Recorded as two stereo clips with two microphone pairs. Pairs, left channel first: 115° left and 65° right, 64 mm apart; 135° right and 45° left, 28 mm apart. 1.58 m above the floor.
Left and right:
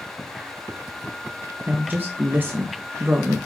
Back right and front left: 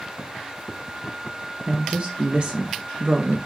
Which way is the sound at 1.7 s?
5° right.